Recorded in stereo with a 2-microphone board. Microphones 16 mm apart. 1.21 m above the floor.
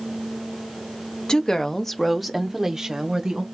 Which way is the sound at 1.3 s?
45° left (ahead or behind).